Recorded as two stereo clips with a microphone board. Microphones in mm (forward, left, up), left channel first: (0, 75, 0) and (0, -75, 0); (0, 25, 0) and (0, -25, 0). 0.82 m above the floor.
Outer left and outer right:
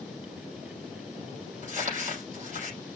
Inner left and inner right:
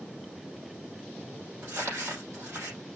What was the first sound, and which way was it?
Crumpling, 55° right (ahead or behind).